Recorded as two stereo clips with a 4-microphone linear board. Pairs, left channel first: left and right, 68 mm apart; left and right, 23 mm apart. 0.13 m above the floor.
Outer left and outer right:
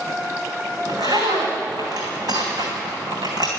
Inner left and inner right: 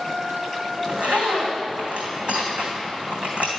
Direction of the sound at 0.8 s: 75° right (ahead or behind).